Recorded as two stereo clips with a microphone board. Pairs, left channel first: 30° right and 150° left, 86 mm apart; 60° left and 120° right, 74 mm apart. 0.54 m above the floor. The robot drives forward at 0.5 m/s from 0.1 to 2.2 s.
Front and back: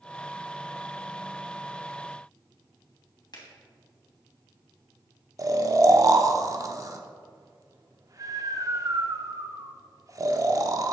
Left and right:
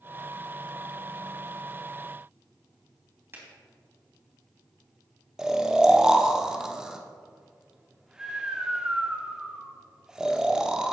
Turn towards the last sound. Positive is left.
turn(degrees=160)